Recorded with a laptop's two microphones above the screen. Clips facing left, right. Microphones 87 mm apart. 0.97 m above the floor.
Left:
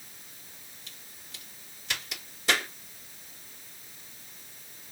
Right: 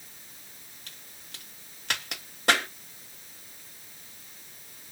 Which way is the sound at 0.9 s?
60° right (ahead or behind).